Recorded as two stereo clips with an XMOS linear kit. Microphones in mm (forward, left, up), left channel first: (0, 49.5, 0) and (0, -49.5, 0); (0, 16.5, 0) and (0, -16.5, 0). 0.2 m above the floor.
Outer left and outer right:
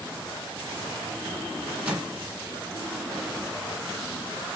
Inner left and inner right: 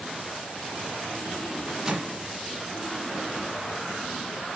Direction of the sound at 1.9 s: 10° right (ahead or behind).